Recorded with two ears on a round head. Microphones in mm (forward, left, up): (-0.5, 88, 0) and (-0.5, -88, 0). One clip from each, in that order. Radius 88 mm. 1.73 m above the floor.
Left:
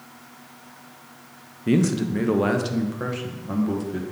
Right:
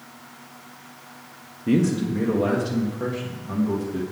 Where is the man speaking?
25° left (ahead or behind), 0.6 m; by 4.0 s 60° left (ahead or behind), 1.6 m.